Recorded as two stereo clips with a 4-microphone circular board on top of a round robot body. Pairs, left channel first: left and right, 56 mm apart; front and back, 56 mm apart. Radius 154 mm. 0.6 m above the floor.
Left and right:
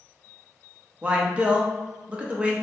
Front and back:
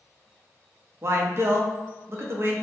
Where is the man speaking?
155° right, 0.9 m.